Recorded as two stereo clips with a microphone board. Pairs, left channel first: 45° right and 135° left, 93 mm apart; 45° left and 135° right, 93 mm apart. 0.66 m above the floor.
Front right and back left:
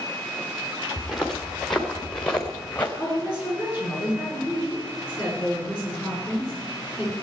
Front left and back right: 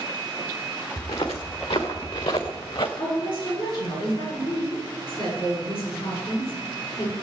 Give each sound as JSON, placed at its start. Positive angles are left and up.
{"t": 1.0, "sound": "footsteps", "azimuth_deg": 45, "distance_m": 3.5}
{"t": 3.0, "sound": "a woman speaking", "azimuth_deg": 55, "distance_m": 8.5}